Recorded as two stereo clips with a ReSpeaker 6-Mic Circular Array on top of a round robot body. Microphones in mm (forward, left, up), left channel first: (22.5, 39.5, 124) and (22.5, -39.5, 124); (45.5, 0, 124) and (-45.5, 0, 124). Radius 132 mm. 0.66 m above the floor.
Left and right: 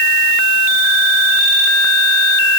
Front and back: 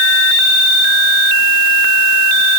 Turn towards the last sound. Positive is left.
No sound to turn to.